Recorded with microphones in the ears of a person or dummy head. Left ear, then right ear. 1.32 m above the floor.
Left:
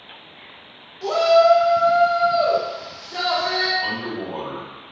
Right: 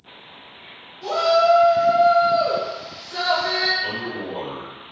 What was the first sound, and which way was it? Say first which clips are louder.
A shout: left 2 dB; 70° left (ahead or behind).